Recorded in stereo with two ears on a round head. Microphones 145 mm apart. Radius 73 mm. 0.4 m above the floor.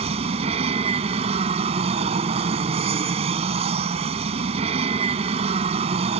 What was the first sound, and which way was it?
An aircraft, 40° right (ahead or behind).